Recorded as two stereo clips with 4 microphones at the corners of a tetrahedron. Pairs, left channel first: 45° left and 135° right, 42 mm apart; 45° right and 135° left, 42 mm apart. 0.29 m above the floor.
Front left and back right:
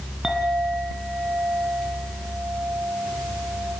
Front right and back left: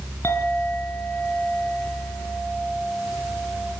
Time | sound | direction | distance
0.2 | a clink | 55° right | 3.5 m